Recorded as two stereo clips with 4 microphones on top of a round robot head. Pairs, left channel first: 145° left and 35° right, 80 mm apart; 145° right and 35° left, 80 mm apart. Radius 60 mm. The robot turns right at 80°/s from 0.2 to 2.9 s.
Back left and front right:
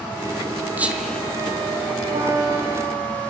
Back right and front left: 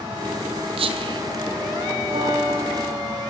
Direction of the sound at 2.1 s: Straight ahead.